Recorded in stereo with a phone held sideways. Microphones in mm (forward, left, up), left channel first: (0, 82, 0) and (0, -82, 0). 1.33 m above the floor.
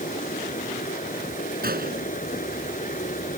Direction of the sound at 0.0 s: 50° left (ahead or behind).